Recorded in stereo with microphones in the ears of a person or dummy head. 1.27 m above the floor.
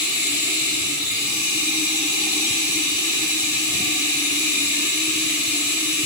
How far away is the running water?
About 1.8 m.